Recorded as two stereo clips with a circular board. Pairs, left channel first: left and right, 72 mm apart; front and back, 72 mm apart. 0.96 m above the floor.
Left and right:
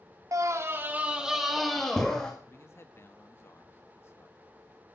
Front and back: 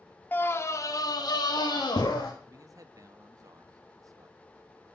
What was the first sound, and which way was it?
A scream, 60° right.